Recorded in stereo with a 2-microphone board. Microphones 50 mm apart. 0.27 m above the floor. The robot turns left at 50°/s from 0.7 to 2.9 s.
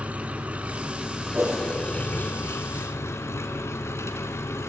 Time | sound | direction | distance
0.0 | an engine running | 150° right | 1.9 m
1.3 | a whoosh | 40° right (ahead or behind) | 5 m